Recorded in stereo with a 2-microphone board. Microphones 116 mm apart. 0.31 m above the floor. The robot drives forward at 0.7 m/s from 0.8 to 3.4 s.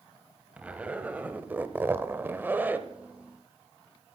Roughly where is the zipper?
Centre.